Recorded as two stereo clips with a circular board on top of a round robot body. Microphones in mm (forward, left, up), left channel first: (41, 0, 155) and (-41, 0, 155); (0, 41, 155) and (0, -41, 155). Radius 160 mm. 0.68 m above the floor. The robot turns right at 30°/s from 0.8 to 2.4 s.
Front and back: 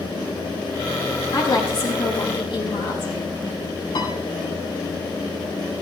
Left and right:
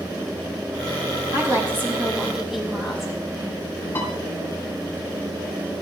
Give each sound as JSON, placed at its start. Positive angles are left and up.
{"t": 1.3, "sound": "a woman speaking", "azimuth_deg": -35, "distance_m": 5.5}
{"t": 4.0, "sound": "a piano", "azimuth_deg": 30, "distance_m": 4.0}